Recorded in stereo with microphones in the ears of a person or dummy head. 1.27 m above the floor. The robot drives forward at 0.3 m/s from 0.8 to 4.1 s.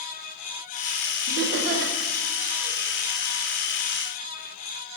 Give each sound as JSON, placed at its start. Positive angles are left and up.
{"t": 1.3, "sound": "laughter", "side_deg": -65, "distance_m": 0.6}